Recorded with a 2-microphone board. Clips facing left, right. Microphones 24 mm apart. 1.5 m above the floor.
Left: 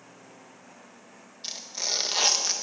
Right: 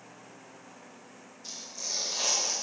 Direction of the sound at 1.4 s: 65° left (ahead or behind).